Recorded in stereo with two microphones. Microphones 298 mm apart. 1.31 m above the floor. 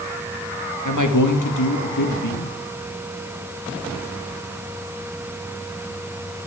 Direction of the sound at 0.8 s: 85° left.